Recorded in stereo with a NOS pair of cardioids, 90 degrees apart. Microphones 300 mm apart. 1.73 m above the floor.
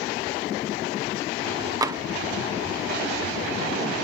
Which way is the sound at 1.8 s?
10° right.